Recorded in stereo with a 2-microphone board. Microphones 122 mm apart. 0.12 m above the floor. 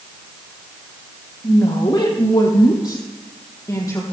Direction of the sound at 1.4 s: 45° left (ahead or behind).